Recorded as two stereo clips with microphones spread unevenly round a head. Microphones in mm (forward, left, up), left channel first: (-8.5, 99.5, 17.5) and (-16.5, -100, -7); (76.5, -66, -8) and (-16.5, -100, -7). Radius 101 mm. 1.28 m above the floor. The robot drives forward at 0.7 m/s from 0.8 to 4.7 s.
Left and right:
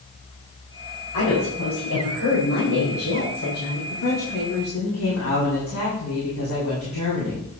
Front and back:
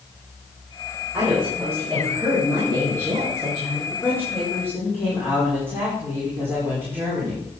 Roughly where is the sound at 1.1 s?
Left.